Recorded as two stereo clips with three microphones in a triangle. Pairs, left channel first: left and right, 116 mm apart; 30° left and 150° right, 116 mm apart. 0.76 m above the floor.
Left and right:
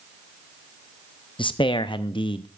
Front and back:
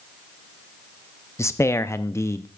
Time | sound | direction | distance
1.4 | a man speaking | 85° left | 0.6 m